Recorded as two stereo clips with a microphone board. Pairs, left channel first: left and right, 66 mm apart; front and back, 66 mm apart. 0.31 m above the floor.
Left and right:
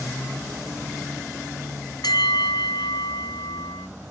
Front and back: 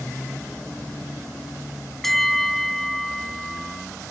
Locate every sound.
2.0 s a bell: 85° left, 0.7 m